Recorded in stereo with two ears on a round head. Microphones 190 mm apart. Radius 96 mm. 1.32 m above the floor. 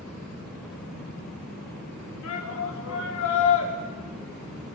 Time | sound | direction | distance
2.2 | a shout | 75° left (ahead or behind) | 1.9 m